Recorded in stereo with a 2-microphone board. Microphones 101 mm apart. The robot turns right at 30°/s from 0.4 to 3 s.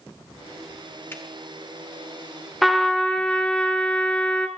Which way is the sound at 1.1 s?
20° left (ahead or behind).